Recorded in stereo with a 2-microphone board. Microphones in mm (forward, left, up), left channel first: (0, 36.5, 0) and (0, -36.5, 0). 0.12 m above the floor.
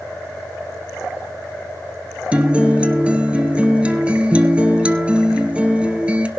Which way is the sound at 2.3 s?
15° right (ahead or behind).